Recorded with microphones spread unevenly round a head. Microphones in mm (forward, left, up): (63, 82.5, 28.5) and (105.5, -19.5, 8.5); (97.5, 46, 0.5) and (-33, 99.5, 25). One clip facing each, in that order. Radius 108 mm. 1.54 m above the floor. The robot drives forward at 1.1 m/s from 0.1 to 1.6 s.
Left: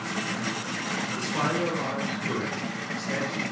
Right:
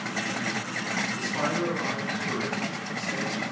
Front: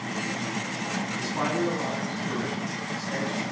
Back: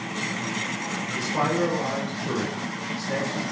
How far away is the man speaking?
About 5.5 m.